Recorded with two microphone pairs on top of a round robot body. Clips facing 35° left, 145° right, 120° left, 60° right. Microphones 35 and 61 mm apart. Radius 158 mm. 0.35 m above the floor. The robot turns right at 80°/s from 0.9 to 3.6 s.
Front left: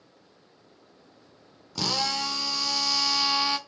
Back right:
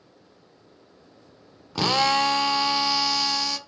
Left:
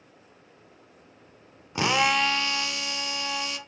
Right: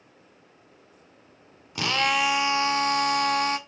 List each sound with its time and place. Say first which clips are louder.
1.8 s a drill: back right 8 dB, left 1 dB; straight behind, 0.6 m; by 3.6 s 30° right, 0.6 m